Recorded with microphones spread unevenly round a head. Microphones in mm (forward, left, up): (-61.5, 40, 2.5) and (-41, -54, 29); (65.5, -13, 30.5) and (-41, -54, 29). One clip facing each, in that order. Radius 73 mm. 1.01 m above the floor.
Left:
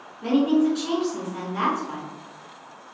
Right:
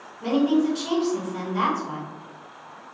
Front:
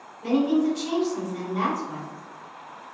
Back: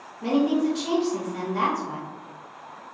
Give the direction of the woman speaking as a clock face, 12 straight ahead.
5 o'clock.